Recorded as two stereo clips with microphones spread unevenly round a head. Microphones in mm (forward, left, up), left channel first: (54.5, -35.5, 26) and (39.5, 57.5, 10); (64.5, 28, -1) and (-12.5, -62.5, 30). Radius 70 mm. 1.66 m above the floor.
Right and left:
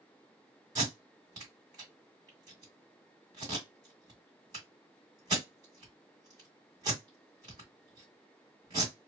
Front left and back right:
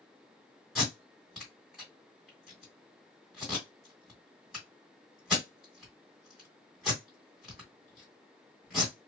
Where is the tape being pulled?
155° left, 1.9 m.